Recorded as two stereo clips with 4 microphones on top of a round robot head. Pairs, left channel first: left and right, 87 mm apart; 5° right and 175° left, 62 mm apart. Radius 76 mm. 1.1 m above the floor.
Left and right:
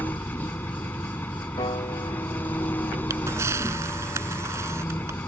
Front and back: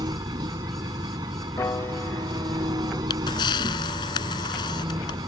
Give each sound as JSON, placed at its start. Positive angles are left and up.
{"t": 0.0, "sound": "an engine running", "azimuth_deg": 160}
{"t": 1.6, "sound": "a piano", "azimuth_deg": 40}
{"t": 3.1, "sound": "a camera shutter", "azimuth_deg": -25}